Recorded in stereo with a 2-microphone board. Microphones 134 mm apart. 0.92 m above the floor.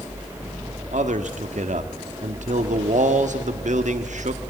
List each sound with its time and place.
0.9 s a man speaking: 65° right (ahead or behind), 1.5 m